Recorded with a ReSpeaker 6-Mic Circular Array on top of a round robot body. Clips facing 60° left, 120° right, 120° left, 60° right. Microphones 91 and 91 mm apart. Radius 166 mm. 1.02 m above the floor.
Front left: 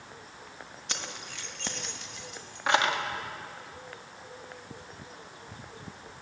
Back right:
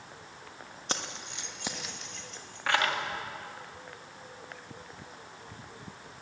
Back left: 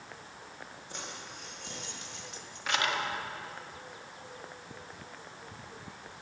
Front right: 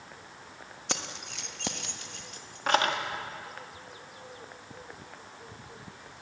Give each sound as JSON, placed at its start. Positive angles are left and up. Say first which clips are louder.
{"t": 0.9, "sound": "keys jangling", "louder": "back right 4 dB, front right 8 dB", "azimuth_deg": -70, "distance_m": 1.5}